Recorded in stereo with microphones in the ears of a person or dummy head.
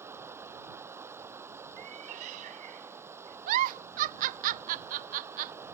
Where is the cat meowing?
45° right (ahead or behind).